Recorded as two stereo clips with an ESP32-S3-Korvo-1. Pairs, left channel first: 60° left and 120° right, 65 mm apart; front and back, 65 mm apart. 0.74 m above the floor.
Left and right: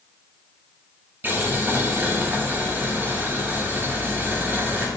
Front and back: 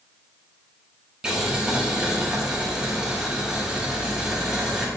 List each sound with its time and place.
1.2 s boiling: 115° right, 0.6 m